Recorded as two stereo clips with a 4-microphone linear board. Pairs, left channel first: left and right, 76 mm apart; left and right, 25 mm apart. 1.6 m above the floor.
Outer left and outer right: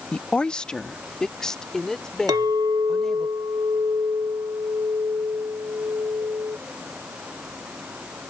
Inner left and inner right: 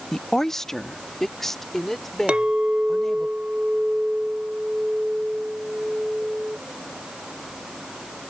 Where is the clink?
55° right (ahead or behind).